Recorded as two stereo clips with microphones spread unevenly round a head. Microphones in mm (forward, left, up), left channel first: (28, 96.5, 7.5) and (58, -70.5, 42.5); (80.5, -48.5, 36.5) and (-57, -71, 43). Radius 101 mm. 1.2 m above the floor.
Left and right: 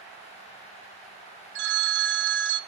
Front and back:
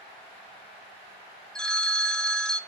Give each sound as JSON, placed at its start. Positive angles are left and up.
{"t": 1.6, "sound": "a phone ringing", "azimuth_deg": -75, "distance_m": 0.9}